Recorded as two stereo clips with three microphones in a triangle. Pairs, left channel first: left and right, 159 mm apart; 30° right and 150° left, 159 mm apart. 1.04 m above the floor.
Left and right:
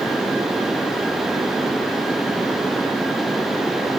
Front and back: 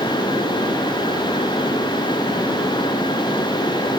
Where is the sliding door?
I don't hear a sliding door.